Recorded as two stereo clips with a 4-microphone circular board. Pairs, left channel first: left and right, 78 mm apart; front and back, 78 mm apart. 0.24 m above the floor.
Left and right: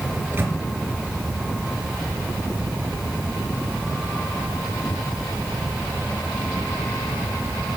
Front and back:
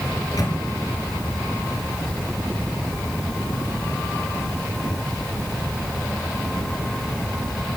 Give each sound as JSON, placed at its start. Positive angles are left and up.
{"t": 0.1, "sound": "a microwave", "azimuth_deg": -35, "distance_m": 3.5}